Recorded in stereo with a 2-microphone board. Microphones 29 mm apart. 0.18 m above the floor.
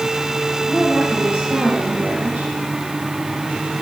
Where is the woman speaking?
50° right (ahead or behind), 4.5 m.